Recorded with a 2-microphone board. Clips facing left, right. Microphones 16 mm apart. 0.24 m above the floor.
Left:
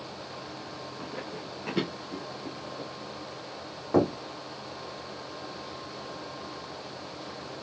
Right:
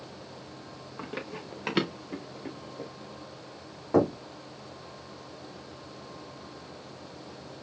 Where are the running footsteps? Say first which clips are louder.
Right 3 dB; 60° right (ahead or behind), 2 m; by 2.9 s 20° right (ahead or behind), 1.6 m.